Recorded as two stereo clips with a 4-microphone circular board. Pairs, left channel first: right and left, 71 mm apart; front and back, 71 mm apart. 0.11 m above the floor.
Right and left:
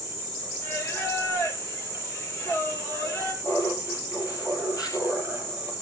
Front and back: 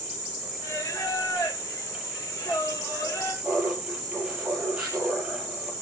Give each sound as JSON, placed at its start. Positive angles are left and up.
{"t": 0.6, "sound": "singing", "azimuth_deg": -50, "distance_m": 4.0}
{"t": 3.4, "sound": "laughter", "azimuth_deg": -115, "distance_m": 3.0}